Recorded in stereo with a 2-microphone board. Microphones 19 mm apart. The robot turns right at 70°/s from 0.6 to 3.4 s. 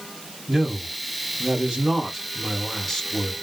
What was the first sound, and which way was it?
A man speaking, 145° right.